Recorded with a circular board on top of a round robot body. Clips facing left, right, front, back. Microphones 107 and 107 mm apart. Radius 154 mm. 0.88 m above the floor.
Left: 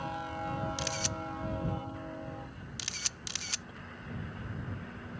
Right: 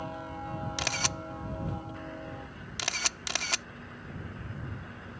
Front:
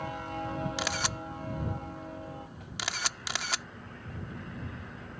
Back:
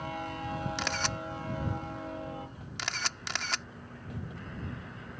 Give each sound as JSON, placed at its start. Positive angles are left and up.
{"t": 0.8, "sound": "a camera shutter", "azimuth_deg": -85}